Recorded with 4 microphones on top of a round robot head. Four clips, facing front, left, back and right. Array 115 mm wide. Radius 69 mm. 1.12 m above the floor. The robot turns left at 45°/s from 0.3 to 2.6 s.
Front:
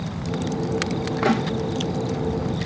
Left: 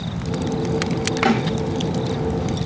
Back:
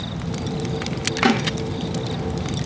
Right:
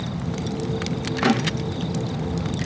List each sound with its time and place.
1.2 s a snare drum: 175° right, 3 m; by 1.4 s straight behind, 3 m